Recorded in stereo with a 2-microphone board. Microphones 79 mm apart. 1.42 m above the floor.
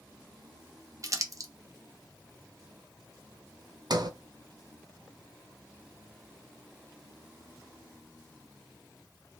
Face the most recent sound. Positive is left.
turn(degrees=-60)  # may be behind; listen again after turning